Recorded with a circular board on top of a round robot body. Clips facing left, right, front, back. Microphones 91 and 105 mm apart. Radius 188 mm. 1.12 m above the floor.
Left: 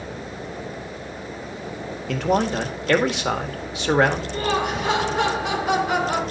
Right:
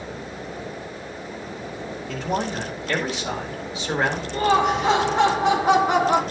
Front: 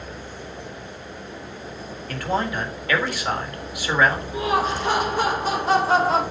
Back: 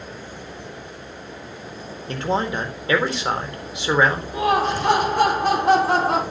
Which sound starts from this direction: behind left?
A man speaking, at 2.1 s.